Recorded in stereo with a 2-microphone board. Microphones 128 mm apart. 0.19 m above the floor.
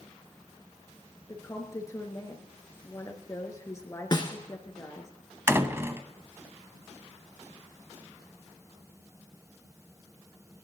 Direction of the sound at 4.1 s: 35° left (ahead or behind).